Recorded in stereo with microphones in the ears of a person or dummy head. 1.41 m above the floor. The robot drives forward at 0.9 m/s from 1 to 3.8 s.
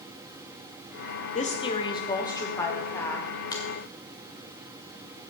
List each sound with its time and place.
1.4 s a woman speaking: 40° left (ahead or behind), 1.0 m; by 3.3 s 15° left (ahead or behind), 2.5 m
3.5 s a finger snap: 25° left (ahead or behind), 1.6 m; by 3.6 s 20° left (ahead or behind), 1.7 m